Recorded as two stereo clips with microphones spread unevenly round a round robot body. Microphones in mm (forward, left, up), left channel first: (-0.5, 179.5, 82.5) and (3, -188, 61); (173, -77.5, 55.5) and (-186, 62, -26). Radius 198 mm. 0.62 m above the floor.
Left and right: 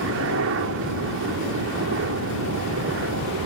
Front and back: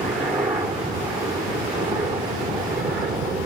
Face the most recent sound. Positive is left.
turn(degrees=-130)